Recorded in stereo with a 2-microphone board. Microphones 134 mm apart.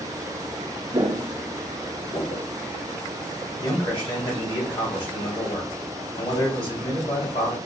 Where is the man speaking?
35° left (ahead or behind), 1.9 m.